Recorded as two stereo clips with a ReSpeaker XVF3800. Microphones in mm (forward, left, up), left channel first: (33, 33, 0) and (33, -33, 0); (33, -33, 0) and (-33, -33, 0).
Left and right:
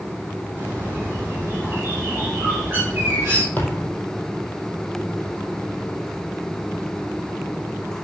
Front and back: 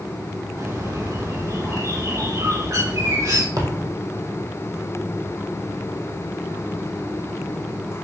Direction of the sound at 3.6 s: 155° left.